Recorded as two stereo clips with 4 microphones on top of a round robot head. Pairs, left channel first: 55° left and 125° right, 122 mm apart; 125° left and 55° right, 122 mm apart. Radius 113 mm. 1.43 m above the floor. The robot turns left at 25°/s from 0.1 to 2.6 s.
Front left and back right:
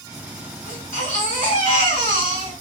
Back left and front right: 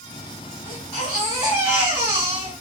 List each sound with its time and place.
0.7 s a baby crying: 50° left, 1.9 m; by 2.5 s 5° left, 1.9 m